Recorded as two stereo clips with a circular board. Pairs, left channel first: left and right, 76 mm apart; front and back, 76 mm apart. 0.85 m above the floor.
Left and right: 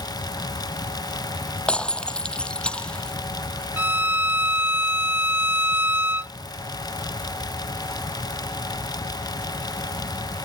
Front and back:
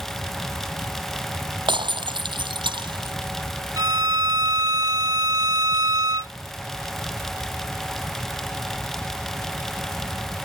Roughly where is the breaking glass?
Behind.